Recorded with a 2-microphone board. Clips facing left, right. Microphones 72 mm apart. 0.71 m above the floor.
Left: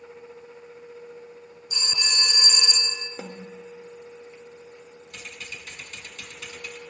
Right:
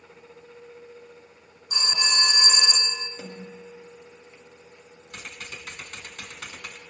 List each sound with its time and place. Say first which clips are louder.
1.7 s a phone ringing: right 4 dB; 55° right (ahead or behind), 1.8 m
3.2 s a snare drum: left 2 dB; 55° left (ahead or behind), 2 m
5.1 s typing on a keyboard: right 2 dB; 55° right (ahead or behind), 1.4 m